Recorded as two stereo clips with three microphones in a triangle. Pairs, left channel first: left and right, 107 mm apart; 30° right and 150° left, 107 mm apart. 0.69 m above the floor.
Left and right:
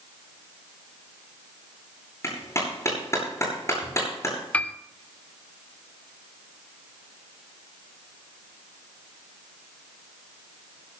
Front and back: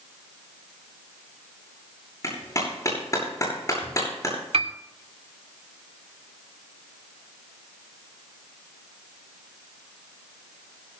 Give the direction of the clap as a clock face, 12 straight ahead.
11 o'clock.